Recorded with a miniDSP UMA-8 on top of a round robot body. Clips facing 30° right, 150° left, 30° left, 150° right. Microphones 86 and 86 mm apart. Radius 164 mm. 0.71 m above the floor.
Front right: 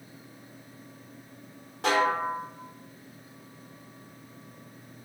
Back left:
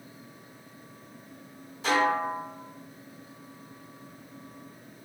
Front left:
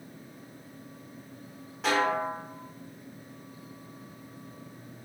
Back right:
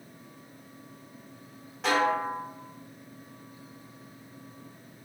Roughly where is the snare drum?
Ahead right.